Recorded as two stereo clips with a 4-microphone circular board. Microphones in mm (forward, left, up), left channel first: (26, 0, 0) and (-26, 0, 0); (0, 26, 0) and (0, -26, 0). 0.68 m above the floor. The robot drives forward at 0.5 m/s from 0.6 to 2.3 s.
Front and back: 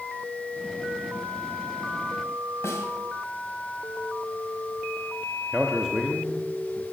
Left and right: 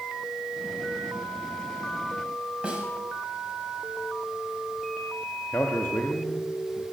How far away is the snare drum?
About 2 m.